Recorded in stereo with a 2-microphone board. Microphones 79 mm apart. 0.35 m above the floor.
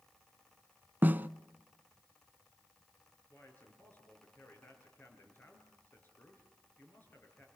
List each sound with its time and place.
1.0 s a snare drum: 25° right (ahead or behind), 0.5 m
3.3 s a man speaking: 25° left (ahead or behind), 5.5 m